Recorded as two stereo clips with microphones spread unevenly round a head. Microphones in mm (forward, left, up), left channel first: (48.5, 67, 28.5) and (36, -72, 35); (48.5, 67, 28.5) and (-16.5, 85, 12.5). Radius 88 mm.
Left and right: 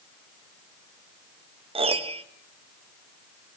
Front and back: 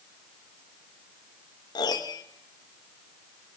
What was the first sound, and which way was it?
A piano, 50° right.